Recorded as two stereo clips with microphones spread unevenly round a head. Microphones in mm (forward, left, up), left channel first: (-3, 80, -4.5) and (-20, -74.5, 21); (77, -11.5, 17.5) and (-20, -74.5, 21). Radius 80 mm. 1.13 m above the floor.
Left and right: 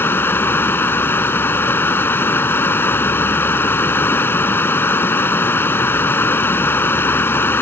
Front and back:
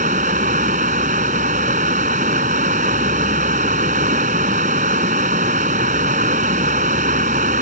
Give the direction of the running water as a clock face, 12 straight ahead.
7 o'clock.